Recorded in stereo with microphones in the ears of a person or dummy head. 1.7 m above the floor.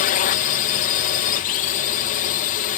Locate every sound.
0.0 s a drone: 50° left (ahead or behind)